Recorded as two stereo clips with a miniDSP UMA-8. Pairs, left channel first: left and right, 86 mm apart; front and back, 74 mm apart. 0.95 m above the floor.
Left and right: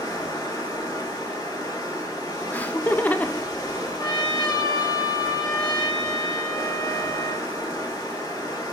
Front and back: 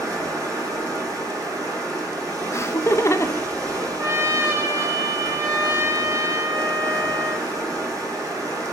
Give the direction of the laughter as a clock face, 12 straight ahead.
11 o'clock.